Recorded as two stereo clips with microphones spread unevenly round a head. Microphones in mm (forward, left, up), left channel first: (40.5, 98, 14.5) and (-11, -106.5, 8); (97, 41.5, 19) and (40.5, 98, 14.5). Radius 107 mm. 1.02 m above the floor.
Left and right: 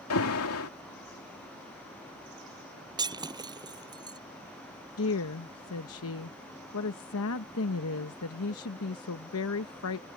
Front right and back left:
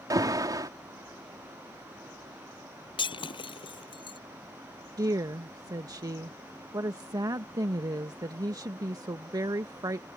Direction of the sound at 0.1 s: 95° left.